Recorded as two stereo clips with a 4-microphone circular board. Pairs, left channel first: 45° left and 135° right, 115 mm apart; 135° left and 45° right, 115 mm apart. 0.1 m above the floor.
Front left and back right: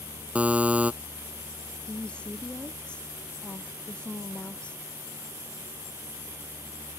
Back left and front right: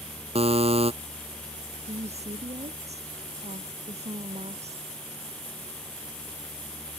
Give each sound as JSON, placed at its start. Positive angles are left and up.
{"t": 0.3, "sound": "a buzzer", "azimuth_deg": -55}
{"t": 1.9, "sound": "a woman speaking", "azimuth_deg": -35}